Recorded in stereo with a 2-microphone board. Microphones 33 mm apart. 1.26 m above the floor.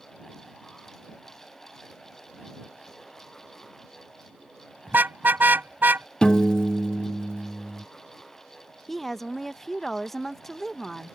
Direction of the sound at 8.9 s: 10° left (ahead or behind).